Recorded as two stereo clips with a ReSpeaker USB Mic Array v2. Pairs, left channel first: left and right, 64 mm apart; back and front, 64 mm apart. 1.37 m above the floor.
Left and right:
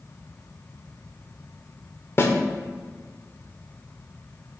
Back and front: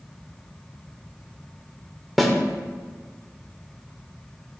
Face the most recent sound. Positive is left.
turn(degrees=90)